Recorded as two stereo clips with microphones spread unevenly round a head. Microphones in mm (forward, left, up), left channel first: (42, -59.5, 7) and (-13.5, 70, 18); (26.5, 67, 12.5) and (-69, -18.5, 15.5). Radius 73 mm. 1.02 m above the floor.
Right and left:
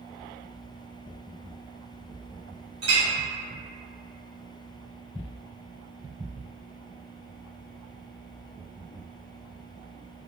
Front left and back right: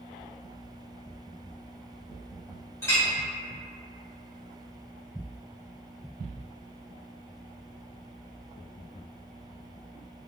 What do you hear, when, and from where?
2.8 s a clink: 110° left, 1.2 m